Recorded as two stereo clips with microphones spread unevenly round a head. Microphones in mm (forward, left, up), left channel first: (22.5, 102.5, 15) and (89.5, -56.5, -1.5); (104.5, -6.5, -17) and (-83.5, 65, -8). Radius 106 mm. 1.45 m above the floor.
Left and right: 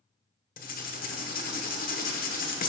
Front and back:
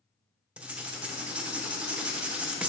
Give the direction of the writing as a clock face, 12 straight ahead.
10 o'clock.